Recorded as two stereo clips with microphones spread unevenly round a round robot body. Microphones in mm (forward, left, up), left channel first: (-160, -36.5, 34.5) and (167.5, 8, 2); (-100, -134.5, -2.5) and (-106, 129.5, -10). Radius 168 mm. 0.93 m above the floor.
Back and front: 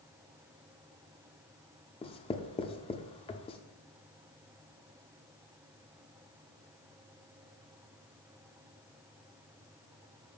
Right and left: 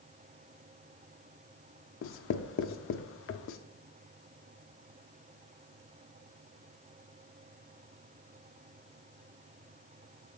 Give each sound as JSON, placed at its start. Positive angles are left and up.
{"t": 2.0, "sound": "writing", "azimuth_deg": -105, "distance_m": 0.6}